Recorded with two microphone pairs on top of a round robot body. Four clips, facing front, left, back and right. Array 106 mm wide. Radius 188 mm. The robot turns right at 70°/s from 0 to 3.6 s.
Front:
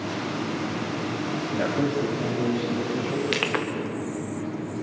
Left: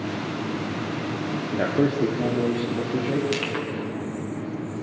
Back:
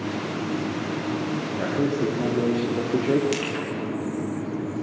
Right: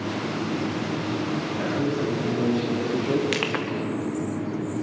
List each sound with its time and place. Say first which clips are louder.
1.5 s a man speaking: left 6 dB, front 1 dB; 80° left, 1.8 m; by 3.2 s 160° right, 1.8 m
3.3 s crushing: right 1 dB, front 1 dB; 45° right, 0.7 m; by 3.6 s 25° right, 0.7 m